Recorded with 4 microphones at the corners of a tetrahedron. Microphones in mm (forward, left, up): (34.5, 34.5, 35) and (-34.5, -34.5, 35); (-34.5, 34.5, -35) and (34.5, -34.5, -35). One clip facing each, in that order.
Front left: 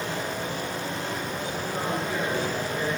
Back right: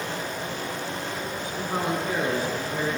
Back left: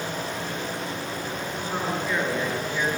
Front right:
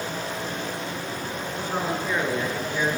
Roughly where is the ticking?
No ticking in this recording.